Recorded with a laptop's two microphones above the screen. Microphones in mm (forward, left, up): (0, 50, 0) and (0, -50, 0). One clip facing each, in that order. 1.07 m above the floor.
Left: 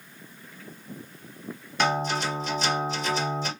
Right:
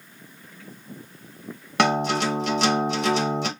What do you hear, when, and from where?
1.8 s a guitar: 70° right (ahead or behind), 1.4 m